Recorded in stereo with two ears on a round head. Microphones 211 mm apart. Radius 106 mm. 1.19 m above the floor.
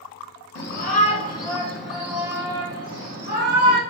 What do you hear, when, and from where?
0.6 s a shout: 45° left (ahead or behind), 0.8 m; by 3.8 s 30° right (ahead or behind), 1.7 m